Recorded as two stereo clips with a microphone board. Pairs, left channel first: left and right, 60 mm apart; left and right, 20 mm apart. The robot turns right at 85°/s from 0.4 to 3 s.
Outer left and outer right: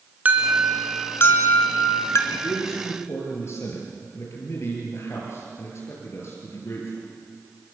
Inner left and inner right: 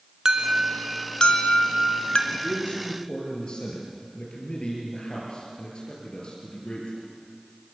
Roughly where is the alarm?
Ahead right.